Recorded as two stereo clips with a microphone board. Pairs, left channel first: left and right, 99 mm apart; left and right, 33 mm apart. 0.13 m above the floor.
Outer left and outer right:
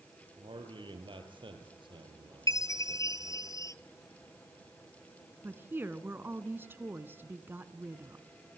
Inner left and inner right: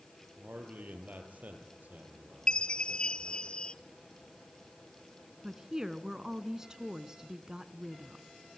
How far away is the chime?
About 0.6 m.